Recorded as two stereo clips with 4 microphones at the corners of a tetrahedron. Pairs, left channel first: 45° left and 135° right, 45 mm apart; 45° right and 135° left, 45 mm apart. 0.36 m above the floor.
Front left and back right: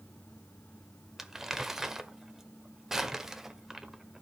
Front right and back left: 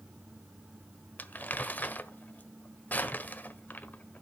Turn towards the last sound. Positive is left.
turn(degrees=-55)